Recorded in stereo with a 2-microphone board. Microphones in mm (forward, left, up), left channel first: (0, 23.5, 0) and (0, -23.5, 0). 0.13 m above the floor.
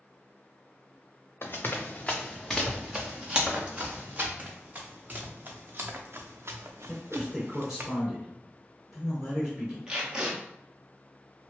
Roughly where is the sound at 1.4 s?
Left.